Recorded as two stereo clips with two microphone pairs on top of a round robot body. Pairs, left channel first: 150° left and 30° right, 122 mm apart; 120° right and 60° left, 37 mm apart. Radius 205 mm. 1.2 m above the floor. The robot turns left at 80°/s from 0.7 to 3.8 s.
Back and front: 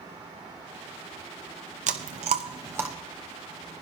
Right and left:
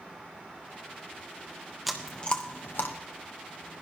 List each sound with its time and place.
1.9 s chewing: 30° right, 0.9 m; by 3.0 s 115° right, 0.9 m